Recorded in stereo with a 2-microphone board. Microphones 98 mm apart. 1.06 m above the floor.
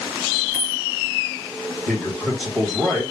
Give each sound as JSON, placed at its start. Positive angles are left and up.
{"t": 0.5, "sound": "a dropped coin", "side_deg": -5, "distance_m": 1.8}
{"t": 1.9, "sound": "a man speaking", "side_deg": 0, "distance_m": 1.4}